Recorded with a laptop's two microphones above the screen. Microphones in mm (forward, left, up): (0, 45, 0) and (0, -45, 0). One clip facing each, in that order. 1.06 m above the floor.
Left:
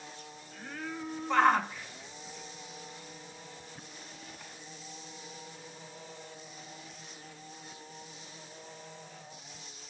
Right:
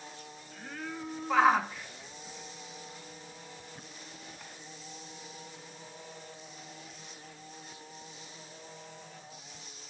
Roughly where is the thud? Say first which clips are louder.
Even; centre.